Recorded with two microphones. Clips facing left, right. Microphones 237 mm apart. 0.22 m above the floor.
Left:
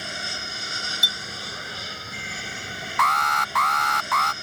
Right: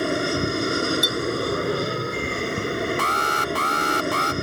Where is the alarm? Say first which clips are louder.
Right 5 dB; 35° right (ahead or behind).